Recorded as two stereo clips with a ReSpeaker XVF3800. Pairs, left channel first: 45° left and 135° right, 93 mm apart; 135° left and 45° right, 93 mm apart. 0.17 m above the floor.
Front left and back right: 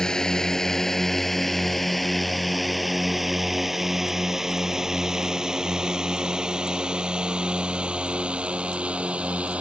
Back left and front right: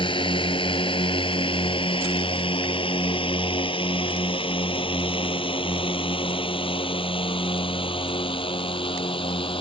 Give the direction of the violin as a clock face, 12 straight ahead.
No violin in this recording.